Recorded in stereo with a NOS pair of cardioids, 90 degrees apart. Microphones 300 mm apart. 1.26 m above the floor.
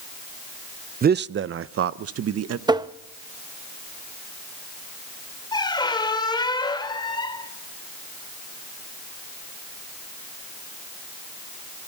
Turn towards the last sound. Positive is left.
turn(degrees=15)